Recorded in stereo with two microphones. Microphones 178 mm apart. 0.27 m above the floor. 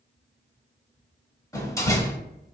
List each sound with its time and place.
1.5 s a door slam: 20° left (ahead or behind), 1.0 m